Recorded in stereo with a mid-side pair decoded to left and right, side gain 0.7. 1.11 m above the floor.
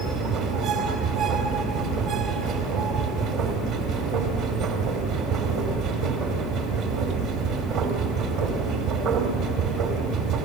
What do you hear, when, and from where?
0.0 s a machine running: 60° right, 2.5 m